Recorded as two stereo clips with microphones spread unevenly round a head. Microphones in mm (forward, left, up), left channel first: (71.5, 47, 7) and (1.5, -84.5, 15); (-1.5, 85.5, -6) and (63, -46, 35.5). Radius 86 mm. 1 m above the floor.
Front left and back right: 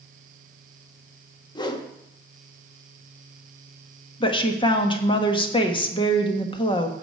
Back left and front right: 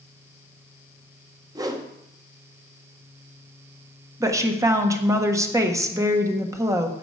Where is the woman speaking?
10° left, 1.4 m.